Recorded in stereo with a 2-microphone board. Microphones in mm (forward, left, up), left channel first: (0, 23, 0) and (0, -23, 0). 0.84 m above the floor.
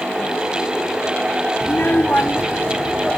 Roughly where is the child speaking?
Left.